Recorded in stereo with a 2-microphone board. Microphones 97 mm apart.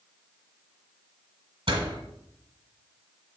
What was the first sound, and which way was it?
A door slam, 60° right (ahead or behind).